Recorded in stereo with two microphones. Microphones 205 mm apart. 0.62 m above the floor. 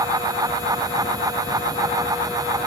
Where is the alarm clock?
I don't hear an alarm clock.